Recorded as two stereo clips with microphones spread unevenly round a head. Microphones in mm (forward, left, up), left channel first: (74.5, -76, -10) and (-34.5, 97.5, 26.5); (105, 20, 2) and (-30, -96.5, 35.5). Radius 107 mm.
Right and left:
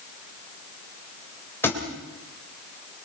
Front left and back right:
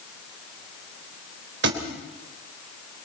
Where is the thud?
140° right, 3 m.